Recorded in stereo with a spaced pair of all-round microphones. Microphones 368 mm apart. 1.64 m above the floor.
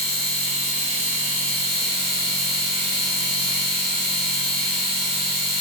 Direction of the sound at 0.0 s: 15° right (ahead or behind).